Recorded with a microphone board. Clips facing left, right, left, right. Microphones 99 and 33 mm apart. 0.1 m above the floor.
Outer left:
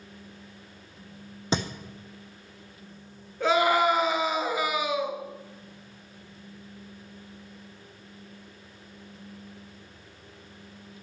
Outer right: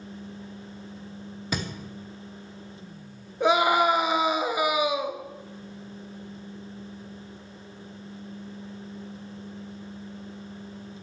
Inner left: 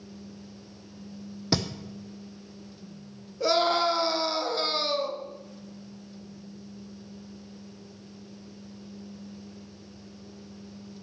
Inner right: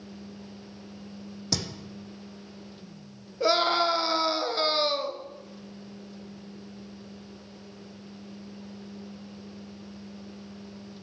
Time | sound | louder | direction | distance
1.5 | a thud | outer left 4 dB, inner left 5 dB | 25° left (ahead or behind) | 1.2 m
3.4 | a scream | outer right 1 dB, even | 20° right (ahead or behind) | 1.2 m